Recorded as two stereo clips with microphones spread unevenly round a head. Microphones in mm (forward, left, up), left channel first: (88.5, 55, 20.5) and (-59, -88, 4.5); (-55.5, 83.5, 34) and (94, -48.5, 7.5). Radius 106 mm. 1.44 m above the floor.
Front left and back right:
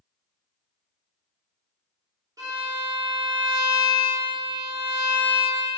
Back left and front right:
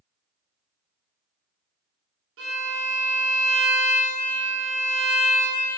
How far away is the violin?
About 2.5 m.